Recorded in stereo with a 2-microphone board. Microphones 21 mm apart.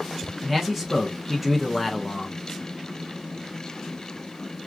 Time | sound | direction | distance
0.4 | a man speaking | 15° right (ahead or behind) | 0.9 m